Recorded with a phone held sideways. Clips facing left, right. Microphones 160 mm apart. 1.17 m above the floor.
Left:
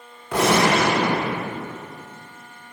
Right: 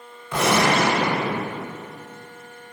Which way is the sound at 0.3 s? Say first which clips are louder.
Left 2 dB; 65° left (ahead or behind).